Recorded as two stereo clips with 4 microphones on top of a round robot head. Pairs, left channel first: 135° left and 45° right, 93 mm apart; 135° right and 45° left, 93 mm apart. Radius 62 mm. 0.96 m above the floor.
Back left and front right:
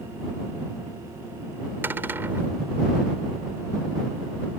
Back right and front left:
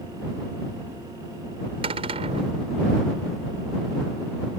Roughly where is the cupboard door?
Ahead left.